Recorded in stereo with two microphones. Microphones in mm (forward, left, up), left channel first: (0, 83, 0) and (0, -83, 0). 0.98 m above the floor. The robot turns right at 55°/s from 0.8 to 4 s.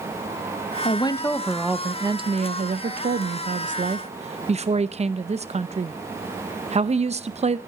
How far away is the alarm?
I don't hear an alarm.